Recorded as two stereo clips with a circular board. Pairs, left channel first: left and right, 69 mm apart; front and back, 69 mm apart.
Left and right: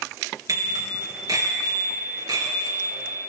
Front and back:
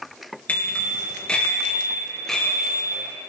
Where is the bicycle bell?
65° right, 4 m; by 3.0 s 90° right, 5 m.